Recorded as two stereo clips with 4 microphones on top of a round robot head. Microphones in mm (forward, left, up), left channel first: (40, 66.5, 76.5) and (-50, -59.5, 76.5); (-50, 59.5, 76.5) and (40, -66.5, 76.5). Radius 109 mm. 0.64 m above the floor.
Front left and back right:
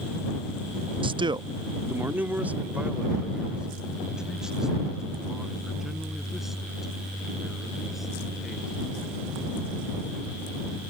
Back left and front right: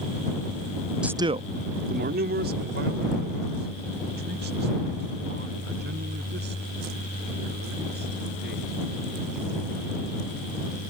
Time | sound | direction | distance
1.0 | a man speaking | 135° right | ?